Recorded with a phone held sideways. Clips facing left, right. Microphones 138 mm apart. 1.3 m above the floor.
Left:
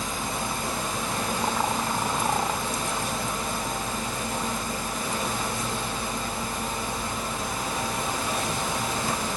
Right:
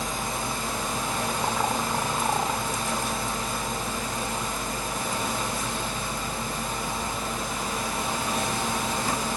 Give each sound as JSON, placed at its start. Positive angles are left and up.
{"t": 0.0, "sound": "a fan", "side_deg": -90, "distance_m": 1.0}